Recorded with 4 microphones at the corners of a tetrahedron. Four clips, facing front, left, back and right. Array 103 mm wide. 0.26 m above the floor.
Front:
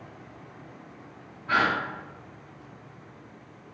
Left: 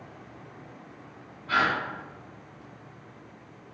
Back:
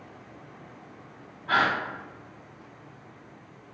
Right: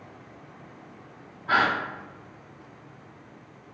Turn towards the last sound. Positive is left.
turn(degrees=-115)